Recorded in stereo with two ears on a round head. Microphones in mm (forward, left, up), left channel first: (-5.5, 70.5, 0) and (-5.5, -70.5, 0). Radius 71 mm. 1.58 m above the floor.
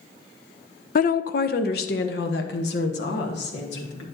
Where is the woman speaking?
55° left (ahead or behind), 0.5 m; by 4.0 s 80° left, 2 m.